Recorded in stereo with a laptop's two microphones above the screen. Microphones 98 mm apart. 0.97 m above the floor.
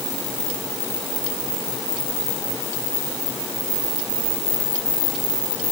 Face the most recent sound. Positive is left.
No sound to turn to.